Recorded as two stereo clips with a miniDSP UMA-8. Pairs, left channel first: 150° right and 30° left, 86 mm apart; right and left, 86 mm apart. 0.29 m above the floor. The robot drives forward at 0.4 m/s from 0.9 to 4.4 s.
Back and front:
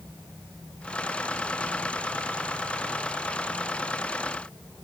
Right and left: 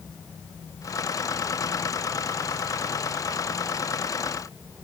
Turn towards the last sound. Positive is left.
No sound to turn to.